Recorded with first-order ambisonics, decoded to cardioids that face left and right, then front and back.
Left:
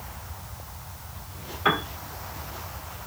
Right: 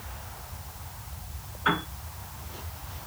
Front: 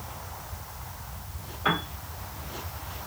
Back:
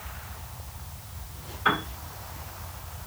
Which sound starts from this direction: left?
A piano, at 1.6 s.